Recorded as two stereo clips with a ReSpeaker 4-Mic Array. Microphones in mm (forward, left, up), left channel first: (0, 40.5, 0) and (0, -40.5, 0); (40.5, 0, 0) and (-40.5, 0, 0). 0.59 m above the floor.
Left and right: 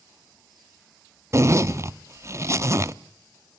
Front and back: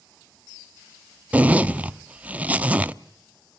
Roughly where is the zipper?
Behind right.